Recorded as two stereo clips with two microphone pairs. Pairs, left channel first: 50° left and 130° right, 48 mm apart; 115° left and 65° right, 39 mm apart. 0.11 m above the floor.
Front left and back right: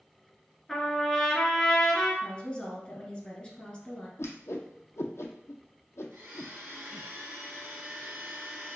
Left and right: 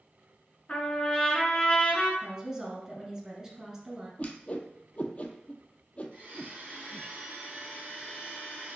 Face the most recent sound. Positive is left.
turn(degrees=-100)